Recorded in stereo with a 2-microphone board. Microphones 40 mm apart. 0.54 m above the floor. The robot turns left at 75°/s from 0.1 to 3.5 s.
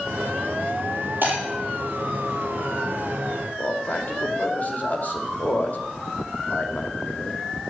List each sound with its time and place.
1.2 s breaking glass: 50° right (ahead or behind), 6 m; by 1.4 s 40° right (ahead or behind), 6 m
3.6 s a man speaking: 40° left (ahead or behind), 2 m